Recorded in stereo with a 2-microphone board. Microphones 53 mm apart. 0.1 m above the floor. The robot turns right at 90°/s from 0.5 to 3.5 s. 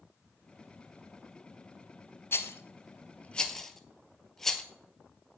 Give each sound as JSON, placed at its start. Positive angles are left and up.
{"t": 2.3, "sound": "a rattle", "side_deg": 50, "distance_m": 0.9}